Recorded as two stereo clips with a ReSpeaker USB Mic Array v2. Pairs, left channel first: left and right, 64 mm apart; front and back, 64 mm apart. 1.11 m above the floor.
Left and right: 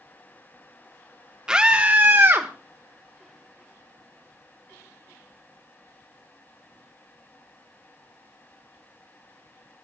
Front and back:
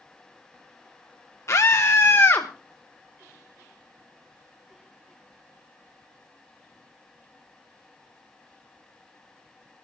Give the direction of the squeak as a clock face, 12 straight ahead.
I don't hear a squeak.